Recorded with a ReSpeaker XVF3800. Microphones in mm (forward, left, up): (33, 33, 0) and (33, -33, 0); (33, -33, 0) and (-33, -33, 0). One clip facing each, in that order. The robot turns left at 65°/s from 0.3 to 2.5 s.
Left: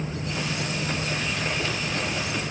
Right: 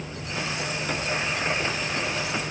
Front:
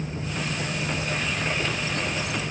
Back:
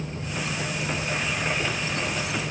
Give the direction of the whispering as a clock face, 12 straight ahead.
I don't hear whispering.